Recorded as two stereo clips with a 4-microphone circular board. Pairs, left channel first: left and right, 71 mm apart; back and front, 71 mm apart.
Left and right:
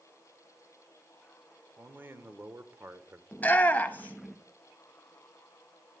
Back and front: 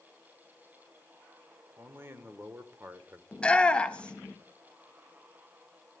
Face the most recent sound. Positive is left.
turn(degrees=125)